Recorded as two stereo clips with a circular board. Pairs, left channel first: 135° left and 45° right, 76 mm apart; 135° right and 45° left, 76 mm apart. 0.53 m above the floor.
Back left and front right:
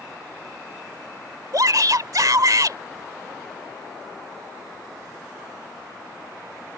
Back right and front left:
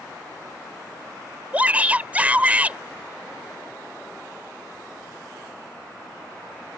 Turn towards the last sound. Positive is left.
turn(degrees=-20)